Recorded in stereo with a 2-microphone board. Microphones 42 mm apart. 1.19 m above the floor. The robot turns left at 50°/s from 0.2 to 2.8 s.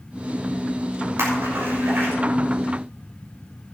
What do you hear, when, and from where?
1.2 s a splash: 80° right, 6.5 m; by 2.1 s 50° right (ahead or behind), 6.5 m